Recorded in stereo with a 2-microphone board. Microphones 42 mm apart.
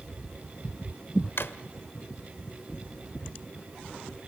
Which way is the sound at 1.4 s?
70° left (ahead or behind).